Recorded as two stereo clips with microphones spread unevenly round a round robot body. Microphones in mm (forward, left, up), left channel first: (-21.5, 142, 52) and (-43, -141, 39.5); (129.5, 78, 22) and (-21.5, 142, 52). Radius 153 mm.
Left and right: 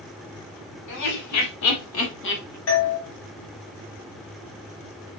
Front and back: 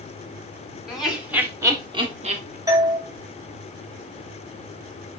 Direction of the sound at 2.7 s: 85° left.